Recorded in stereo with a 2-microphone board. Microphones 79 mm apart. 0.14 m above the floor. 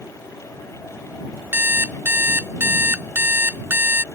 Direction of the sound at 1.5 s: 30° right (ahead or behind).